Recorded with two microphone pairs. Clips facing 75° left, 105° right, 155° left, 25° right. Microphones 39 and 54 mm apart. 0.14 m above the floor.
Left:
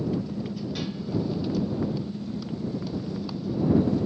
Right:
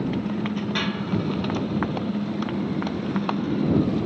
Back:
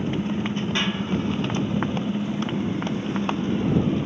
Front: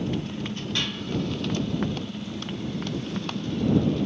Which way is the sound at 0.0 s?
145° right.